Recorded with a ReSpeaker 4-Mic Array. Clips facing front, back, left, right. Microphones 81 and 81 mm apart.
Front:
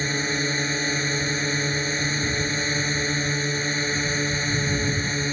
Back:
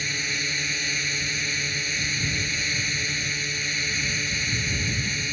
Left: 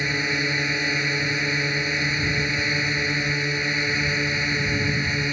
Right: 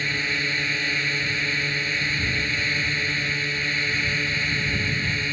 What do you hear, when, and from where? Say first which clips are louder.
0.0 s a drone: front 6 dB, left 2 dB; 25° left